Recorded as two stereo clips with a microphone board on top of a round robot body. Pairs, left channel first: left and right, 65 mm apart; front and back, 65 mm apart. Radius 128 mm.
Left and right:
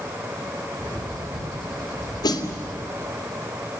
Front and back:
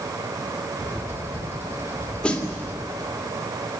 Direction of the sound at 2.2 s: 80° left.